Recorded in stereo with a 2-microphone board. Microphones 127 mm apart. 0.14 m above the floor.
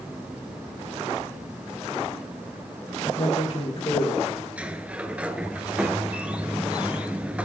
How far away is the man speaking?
About 3.5 m.